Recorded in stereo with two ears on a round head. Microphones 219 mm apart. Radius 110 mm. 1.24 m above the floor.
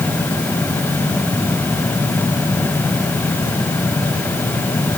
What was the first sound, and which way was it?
Only background noise.